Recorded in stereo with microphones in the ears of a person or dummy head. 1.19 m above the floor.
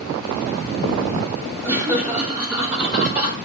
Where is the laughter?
5° right (ahead or behind), 2.5 m.